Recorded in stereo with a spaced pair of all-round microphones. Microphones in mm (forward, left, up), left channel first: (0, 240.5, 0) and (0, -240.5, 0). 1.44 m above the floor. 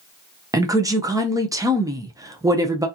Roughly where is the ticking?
I don't hear ticking.